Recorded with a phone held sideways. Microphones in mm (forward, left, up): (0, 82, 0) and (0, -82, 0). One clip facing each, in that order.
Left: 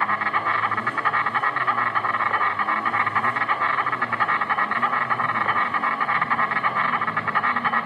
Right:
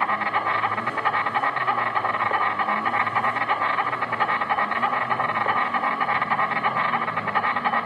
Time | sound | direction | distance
0.0 | an insect | 20° right (ahead or behind) | 1.0 m